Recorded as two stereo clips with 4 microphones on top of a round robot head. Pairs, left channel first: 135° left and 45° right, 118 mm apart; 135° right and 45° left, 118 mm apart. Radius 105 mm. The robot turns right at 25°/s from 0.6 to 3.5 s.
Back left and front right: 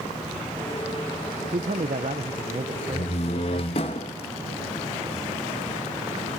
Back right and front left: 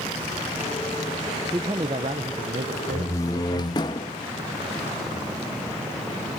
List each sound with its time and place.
1.5 s a man speaking: 20° right, 0.6 m; by 3.9 s 30° left, 0.6 m
2.9 s a door slam: 155° left, 0.8 m; by 4.1 s 170° left, 0.8 m